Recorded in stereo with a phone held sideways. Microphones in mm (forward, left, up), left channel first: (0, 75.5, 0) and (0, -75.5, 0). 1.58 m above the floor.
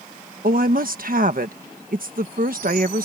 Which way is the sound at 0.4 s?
70° right (ahead or behind).